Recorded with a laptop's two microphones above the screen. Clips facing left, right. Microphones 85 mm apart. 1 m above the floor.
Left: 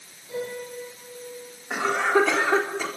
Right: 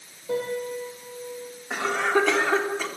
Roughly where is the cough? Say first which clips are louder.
Left 1 dB; centre.